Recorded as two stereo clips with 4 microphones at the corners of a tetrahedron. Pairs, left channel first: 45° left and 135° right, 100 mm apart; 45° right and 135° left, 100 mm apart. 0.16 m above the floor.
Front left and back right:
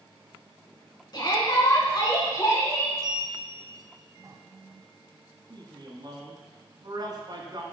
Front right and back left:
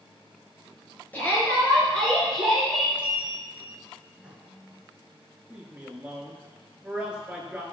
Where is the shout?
20° left, 2 m; by 2.9 s 55° left, 1.5 m.